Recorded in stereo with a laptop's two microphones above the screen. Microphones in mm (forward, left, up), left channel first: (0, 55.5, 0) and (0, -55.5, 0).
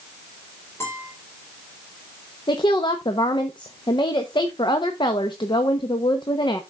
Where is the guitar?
25° left (ahead or behind), 5 m.